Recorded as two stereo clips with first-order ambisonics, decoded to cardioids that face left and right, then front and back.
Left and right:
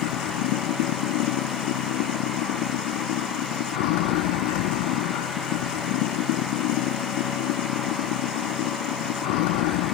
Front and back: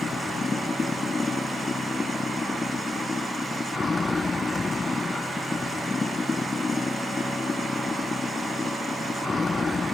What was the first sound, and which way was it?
Running water, 75° left.